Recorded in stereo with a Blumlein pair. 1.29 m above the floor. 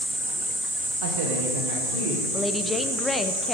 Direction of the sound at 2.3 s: 10° left.